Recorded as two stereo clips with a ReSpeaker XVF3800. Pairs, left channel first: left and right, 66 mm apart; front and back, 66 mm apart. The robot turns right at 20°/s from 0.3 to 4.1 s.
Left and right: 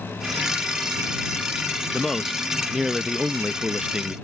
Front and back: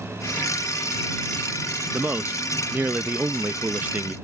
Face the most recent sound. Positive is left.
turn(degrees=-145)